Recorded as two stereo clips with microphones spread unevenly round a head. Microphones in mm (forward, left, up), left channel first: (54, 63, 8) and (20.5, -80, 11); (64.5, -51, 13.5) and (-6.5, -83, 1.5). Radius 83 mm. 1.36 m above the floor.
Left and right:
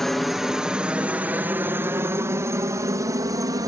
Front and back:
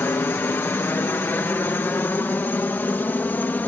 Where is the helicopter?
10° right; by 3.7 s 40° right.